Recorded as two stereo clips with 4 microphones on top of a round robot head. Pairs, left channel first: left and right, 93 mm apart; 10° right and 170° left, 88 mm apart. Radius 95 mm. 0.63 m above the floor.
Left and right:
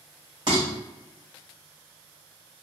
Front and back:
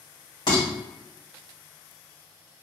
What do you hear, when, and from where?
0.5 s dishes clattering: 50° right, 1.5 m